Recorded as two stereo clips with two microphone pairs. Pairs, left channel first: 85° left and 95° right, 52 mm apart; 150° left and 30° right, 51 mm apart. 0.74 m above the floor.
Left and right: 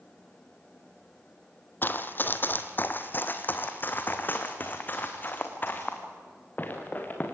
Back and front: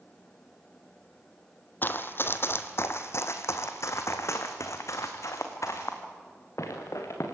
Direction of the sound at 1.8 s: 120° left.